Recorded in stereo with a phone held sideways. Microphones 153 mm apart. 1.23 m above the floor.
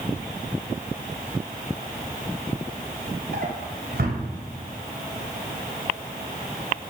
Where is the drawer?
70° right (ahead or behind), 3 m.